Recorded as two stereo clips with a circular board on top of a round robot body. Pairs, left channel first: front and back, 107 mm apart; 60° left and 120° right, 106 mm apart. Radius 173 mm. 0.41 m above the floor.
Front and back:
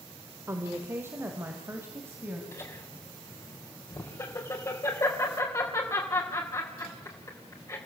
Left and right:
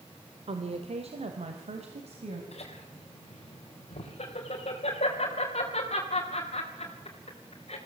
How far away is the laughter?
About 3.5 m.